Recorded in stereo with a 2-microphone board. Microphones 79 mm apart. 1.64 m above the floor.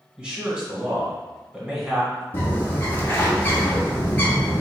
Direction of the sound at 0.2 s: 15° right (ahead or behind).